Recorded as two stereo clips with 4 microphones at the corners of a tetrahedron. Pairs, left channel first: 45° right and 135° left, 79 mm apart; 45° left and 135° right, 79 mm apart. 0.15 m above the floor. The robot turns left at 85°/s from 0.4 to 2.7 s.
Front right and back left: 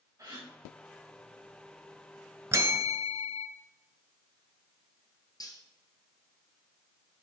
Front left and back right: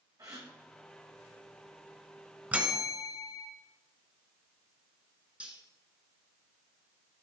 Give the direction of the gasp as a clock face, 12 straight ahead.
6 o'clock.